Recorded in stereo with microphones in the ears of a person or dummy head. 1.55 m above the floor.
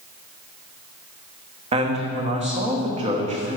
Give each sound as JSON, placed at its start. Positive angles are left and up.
{"t": 1.7, "sound": "a man speaking", "side_deg": -35, "distance_m": 1.2}